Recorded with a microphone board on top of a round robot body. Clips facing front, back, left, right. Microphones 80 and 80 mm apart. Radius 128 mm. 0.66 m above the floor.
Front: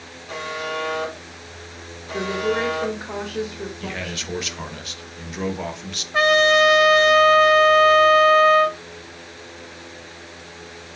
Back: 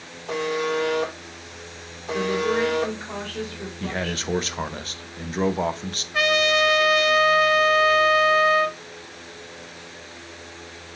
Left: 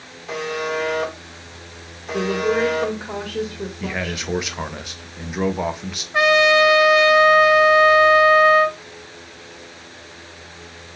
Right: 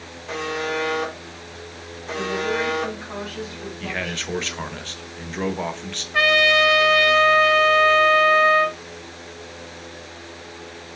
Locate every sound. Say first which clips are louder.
0.3 s a buzzer: back 4 dB, left 1 dB; 175° left, 2.0 m
2.1 s a woman speaking: even, left 4 dB; 70° left, 1.5 m
3.8 s a man speaking: back 3 dB, left 2 dB; 160° left, 0.7 m
6.1 s a trumpet: front 5 dB, left 3 dB; 30° left, 0.6 m